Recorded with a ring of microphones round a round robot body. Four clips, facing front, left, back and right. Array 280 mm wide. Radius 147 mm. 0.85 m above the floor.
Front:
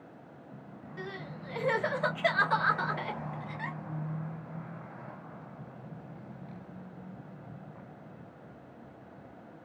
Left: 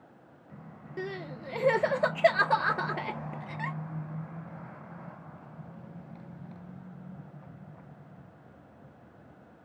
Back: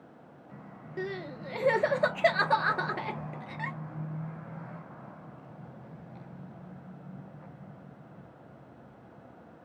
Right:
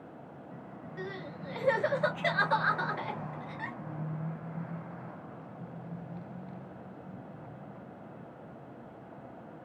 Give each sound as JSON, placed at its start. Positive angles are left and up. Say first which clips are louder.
{"t": 1.0, "sound": "crying", "louder": "left 4 dB, back 6 dB", "azimuth_deg": 135, "distance_m": 1.3}